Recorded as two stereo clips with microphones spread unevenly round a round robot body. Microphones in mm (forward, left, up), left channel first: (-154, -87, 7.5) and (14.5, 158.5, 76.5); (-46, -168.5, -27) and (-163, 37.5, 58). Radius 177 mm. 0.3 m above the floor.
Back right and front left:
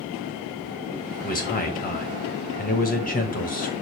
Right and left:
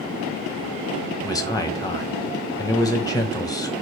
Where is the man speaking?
100° right, 1.4 m.